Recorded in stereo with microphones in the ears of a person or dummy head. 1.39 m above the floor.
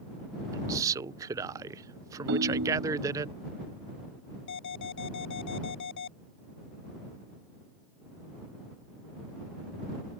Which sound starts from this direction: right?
A ringtone, at 2.3 s.